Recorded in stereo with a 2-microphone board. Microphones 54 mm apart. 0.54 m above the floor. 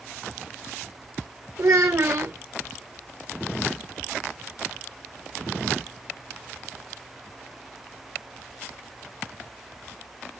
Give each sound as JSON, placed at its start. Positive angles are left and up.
{"t": 1.6, "sound": "a child speaking", "side_deg": -70, "distance_m": 0.7}